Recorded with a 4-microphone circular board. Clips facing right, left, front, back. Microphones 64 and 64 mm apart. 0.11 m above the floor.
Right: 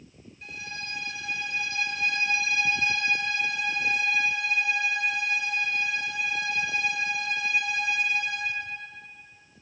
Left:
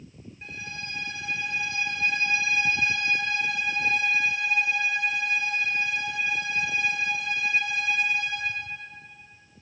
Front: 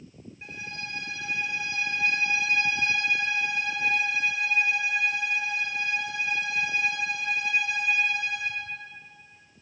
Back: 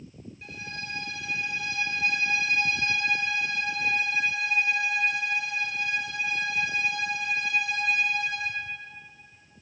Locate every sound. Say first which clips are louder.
0.4 s a violin: even, front 1 dB; 50° left, 2 m